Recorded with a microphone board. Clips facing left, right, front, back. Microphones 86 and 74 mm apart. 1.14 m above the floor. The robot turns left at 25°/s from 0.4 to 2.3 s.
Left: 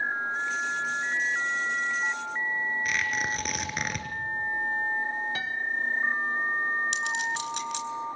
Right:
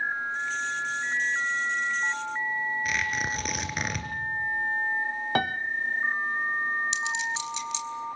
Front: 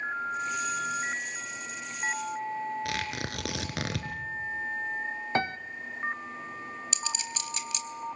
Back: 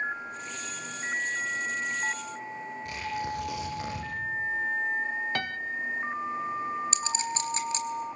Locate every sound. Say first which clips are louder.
2.9 s tearing paper: even, back 1 dB; straight ahead, 4.5 m
5.3 s a piano: right 7 dB, front 4 dB; 65° right, 0.9 m
6.9 s a clink: even, back 6 dB; 125° left, 3.5 m